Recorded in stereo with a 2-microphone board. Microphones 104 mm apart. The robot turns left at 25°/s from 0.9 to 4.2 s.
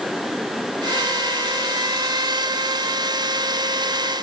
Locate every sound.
Only background noise.